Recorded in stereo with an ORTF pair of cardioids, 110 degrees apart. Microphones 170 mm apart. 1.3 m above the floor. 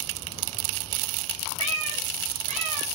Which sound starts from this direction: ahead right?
A cat meowing, at 1.6 s.